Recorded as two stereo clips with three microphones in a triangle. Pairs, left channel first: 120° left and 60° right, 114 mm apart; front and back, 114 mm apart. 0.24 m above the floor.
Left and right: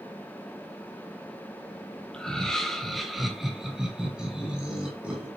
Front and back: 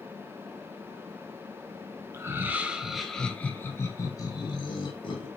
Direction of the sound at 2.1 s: 165° right.